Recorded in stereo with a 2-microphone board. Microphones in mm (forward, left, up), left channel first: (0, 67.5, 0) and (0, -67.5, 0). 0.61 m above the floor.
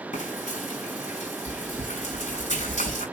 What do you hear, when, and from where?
0.1 s frying: 65° left (ahead or behind), 6 m